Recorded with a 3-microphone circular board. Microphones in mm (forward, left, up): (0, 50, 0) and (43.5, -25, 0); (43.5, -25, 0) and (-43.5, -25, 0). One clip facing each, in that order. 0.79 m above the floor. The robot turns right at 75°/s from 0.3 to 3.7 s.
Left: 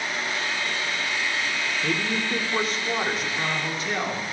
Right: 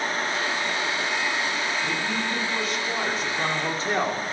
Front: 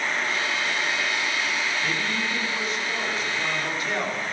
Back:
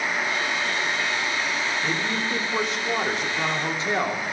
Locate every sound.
1.8 s a man speaking: 105° left, 1.9 m; by 4.2 s 115° right, 1.9 m